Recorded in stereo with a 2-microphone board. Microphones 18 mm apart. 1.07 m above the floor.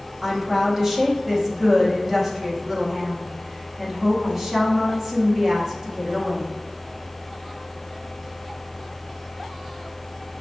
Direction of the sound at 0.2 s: 20° right (ahead or behind).